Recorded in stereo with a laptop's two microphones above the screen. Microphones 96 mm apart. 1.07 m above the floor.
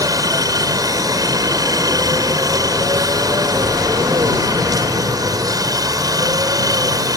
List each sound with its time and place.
0.0 s a helicopter: 40° right (ahead or behind)